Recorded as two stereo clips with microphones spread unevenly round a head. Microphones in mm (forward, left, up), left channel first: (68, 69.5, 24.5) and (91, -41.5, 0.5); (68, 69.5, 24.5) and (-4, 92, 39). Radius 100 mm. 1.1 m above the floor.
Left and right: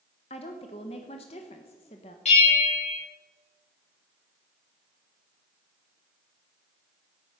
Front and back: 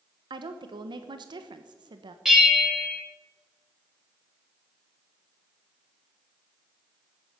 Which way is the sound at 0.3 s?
155° left.